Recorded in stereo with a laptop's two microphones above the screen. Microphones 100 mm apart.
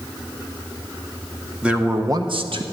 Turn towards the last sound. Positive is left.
turn(degrees=-55)  # may be behind; listen again after turning